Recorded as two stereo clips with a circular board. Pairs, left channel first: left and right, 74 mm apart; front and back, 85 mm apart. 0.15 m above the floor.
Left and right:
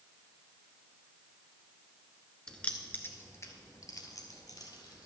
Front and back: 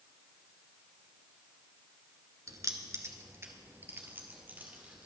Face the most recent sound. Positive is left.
turn(degrees=110)